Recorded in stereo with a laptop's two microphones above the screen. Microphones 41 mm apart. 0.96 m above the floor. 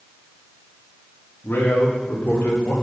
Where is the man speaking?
65° left (ahead or behind), 2 m; by 2.7 s 40° left (ahead or behind), 3.5 m.